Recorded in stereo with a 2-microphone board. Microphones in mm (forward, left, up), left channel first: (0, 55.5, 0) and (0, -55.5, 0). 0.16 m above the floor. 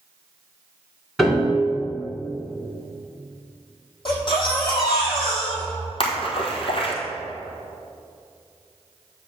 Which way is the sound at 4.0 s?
45° left (ahead or behind).